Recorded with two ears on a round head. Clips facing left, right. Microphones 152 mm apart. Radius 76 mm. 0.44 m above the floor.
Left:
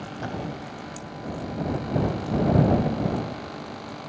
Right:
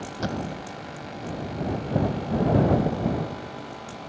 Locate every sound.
0.2 s a thud: 50° right (ahead or behind)